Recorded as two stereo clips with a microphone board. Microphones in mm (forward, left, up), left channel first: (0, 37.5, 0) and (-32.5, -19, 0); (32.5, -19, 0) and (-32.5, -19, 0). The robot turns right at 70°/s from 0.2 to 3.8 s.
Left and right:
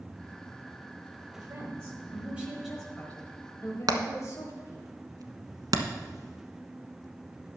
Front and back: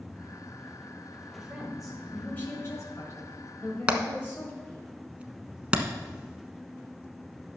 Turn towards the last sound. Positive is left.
turn(degrees=-105)